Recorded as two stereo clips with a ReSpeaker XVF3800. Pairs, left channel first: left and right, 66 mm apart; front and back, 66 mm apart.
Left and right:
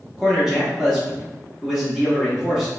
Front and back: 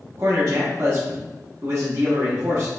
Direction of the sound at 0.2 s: 170° right.